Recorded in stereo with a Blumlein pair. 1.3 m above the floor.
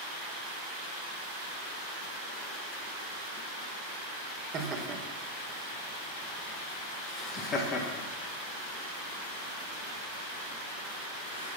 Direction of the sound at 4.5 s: 30° right.